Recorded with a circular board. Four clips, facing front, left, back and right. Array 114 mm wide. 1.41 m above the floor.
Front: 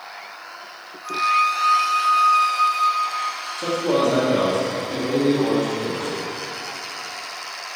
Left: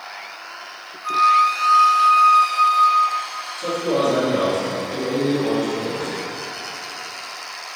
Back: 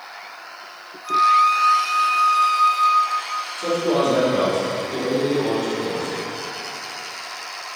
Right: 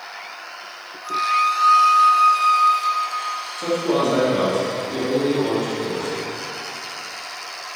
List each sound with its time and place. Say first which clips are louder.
1.0 s a flute: left 4 dB, back 4 dB; 120° left, 1.2 m
3.6 s a man speaking: even, even; 30° right, 2.5 m